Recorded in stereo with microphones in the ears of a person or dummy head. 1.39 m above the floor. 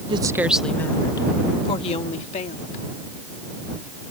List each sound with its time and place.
0.1 s a woman speaking: 30° right (ahead or behind); by 2.8 s 40° left (ahead or behind)